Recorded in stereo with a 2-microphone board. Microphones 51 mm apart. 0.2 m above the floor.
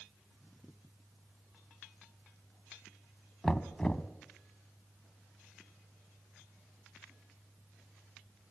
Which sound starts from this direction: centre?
Knocking, at 3.4 s.